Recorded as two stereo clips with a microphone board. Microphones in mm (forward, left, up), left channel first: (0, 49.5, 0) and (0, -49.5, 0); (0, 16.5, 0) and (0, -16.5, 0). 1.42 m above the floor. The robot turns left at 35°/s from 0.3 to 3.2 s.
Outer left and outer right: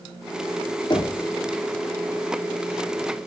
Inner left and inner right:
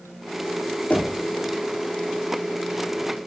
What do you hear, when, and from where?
0.9 s knocking: 50° left (ahead or behind), 2.5 m; by 1.2 s 60° left (ahead or behind), 2.5 m